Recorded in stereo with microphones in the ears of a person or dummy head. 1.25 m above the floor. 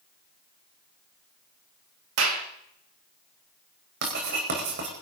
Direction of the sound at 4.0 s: 60° right (ahead or behind).